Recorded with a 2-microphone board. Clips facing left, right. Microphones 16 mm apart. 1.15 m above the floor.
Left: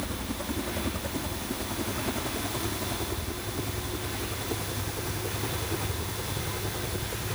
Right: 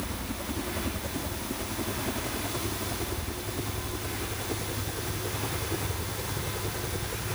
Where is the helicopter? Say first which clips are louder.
Left 1 dB; 20° left (ahead or behind); by 7.4 s centre (ahead or behind).